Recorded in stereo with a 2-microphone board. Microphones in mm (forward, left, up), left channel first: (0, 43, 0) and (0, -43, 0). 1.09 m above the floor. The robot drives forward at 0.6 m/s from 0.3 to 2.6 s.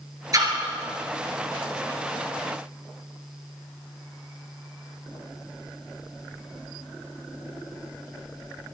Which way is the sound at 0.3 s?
45° right (ahead or behind).